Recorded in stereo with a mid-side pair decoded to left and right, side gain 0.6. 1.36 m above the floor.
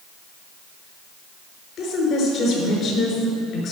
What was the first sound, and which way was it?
A woman speaking, 50° left.